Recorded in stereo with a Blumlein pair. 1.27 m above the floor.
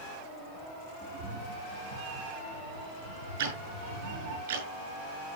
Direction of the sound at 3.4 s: 55° right.